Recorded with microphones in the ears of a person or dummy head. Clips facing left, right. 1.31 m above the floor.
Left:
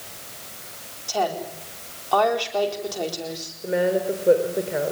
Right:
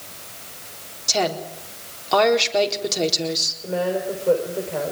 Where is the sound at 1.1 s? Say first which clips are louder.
Right 1 dB; 25° right (ahead or behind), 4 m.